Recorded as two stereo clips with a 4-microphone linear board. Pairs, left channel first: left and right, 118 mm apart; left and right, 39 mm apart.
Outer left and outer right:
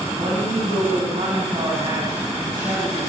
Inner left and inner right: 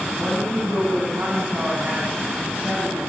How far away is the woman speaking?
About 8.5 m.